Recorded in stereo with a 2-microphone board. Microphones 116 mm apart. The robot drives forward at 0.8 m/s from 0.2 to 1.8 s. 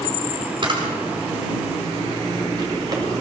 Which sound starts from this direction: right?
A camera shutter, at 0.6 s.